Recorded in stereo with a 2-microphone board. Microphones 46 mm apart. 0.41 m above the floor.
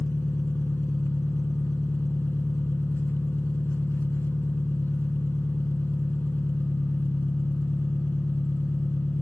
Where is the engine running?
50° left (ahead or behind), 1.2 m.